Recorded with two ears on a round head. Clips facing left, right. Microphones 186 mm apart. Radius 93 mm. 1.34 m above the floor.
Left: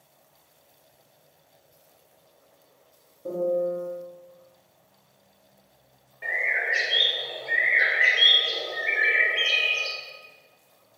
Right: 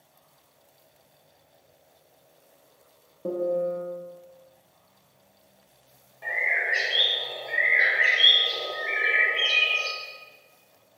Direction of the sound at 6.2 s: 25° left (ahead or behind).